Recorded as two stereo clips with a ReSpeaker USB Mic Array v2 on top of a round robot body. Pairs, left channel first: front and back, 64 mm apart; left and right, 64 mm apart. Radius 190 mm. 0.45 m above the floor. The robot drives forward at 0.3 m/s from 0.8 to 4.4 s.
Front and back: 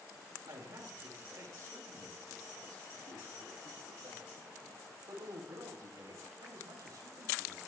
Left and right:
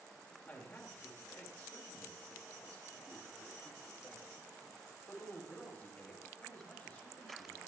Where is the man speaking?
145° left, 3.5 m; by 7.6 s 155° left, 4.5 m.